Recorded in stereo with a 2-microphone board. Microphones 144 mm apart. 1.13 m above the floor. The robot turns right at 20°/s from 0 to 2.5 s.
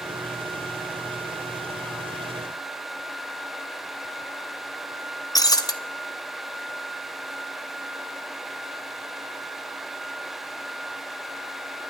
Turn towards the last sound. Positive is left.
turn(degrees=25)  # may be behind; listen again after turning